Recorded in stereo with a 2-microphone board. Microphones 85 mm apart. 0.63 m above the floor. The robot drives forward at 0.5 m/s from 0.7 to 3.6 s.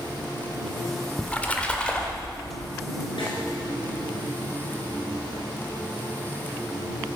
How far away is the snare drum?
About 4 m.